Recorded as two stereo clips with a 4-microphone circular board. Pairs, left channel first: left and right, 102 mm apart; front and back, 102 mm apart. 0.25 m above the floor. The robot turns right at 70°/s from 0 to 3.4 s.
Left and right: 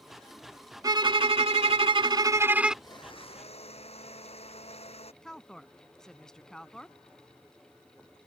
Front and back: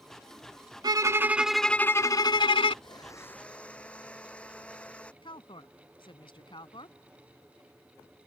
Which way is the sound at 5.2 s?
5° left.